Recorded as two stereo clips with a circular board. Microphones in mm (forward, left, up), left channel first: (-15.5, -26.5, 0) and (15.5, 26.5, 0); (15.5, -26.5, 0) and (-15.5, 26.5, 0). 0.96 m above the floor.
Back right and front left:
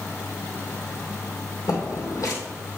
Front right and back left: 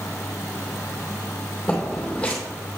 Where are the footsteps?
130° right, 2 m.